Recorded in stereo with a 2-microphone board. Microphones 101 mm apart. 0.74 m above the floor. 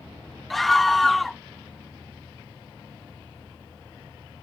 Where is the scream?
Centre (ahead or behind).